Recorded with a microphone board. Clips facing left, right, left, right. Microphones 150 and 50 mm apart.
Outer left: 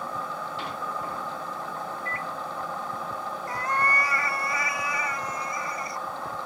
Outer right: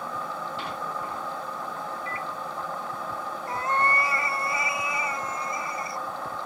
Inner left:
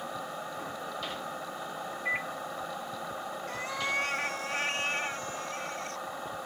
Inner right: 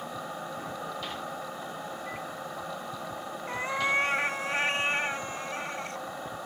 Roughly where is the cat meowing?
Right.